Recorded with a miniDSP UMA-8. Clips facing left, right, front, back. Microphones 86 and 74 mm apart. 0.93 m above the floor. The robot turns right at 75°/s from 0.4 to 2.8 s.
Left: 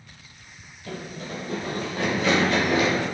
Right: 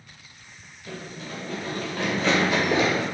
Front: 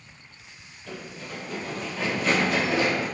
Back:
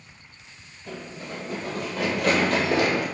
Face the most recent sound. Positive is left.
turn(degrees=-155)